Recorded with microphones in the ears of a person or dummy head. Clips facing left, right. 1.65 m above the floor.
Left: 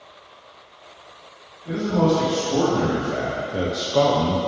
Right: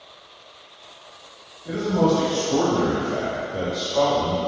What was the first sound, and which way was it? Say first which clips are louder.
A man speaking: even; 10° right (ahead or behind).